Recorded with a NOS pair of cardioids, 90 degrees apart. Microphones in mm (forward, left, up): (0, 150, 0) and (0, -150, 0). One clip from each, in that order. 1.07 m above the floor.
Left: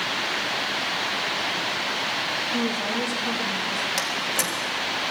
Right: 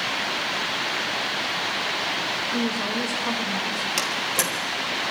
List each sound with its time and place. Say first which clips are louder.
2.5 s a woman speaking: even; straight ahead, 2.5 m
4.0 s a door slam: right 1 dB; 20° right, 3.5 m